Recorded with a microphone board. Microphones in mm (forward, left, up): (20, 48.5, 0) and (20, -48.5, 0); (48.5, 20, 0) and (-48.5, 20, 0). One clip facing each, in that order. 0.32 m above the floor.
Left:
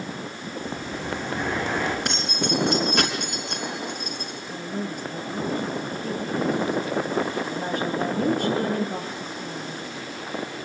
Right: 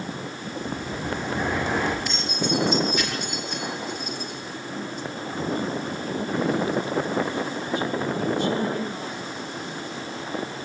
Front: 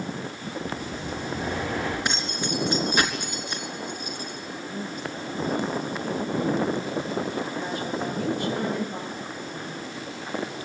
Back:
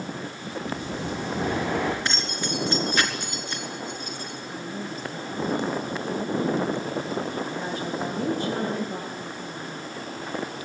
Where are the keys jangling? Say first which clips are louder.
Even, front 1 dB; 75° left, 3.5 m.